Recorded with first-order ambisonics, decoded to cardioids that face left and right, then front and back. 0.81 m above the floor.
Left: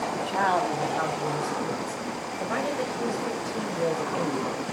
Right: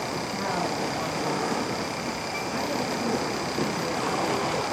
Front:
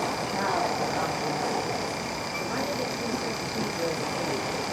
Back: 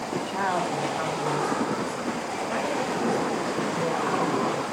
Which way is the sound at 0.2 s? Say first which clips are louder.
Left 7 dB, back 1 dB; 100° left.